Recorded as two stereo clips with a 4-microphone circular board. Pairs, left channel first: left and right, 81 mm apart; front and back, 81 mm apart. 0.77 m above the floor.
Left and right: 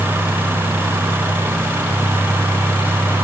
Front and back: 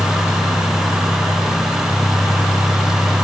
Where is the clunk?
I don't hear a clunk.